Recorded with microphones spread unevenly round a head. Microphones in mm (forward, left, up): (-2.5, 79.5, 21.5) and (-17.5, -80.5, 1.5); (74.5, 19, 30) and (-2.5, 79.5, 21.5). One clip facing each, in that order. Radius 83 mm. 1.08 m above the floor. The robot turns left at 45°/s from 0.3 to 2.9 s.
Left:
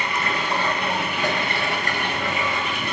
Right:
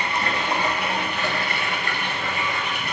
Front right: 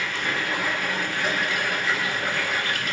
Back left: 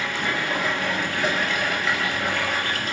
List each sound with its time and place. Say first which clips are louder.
0.0 s running water: even, back left 2 dB; 155° right, 6 m; by 2.9 s 85° left, 6 m